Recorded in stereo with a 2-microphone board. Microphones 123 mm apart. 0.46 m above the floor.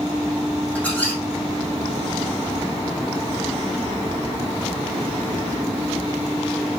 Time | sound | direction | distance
0.8 | a squeak | 15° left (ahead or behind) | 8.5 m